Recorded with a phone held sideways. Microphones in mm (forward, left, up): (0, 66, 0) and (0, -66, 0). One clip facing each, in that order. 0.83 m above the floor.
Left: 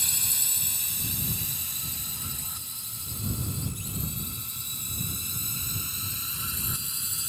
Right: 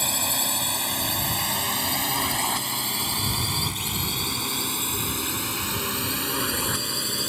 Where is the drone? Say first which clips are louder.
Right 15 dB; 65° right (ahead or behind); by 7.3 s 70° right (ahead or behind).